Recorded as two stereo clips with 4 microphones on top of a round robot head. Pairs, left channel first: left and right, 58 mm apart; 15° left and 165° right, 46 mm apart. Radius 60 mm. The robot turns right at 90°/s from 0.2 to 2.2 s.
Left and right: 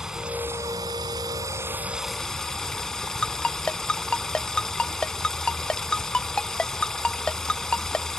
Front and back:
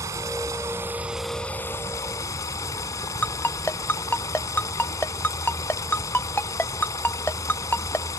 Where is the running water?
170° right; by 8.2 s 10° left.